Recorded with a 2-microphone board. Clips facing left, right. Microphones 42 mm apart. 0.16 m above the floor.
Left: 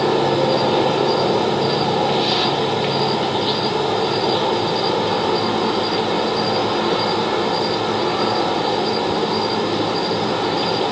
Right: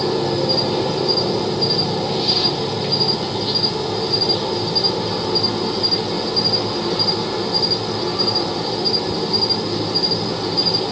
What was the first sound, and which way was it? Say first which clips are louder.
An insect: left 3 dB; 45° left (ahead or behind).